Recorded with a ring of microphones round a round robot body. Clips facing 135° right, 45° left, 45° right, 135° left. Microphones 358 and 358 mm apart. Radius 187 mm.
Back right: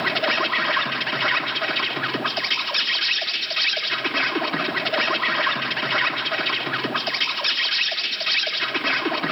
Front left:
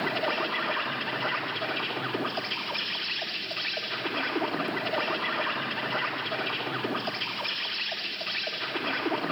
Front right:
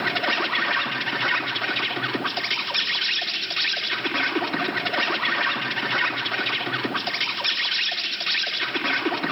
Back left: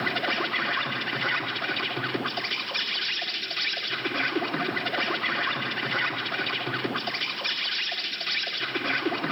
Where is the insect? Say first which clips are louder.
Back right 4 dB, front right 2 dB; 100° right, 1.6 m.